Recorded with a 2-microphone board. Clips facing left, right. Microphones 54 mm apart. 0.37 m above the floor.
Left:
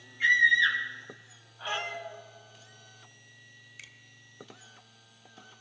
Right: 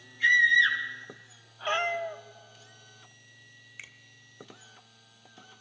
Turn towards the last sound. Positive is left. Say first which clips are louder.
# right 4 dB
turn(degrees=-25)  # may be behind; listen again after turning